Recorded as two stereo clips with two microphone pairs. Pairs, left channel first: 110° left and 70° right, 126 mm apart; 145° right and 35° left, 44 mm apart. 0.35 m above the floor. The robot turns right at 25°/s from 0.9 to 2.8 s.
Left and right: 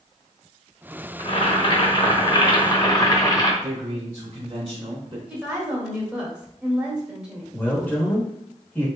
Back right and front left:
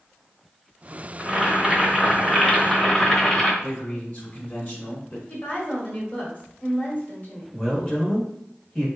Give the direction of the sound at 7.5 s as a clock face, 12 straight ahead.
7 o'clock.